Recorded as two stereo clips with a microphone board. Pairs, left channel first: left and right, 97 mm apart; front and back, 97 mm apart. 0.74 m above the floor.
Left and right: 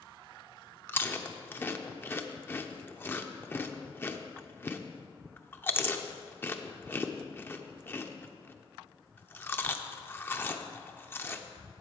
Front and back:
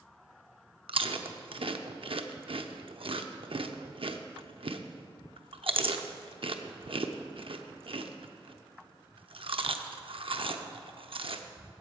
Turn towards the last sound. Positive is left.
turn(degrees=155)